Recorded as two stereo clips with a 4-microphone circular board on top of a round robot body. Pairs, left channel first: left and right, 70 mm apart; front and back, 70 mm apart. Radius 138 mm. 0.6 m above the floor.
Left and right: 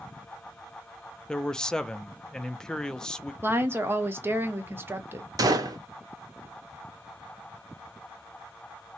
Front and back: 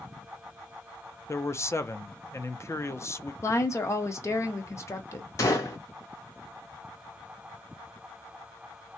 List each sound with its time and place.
1.3 s a man speaking: 15° left, 0.6 m
3.4 s a woman speaking: 35° right, 1.0 m
5.4 s a gunshot: 50° right, 0.5 m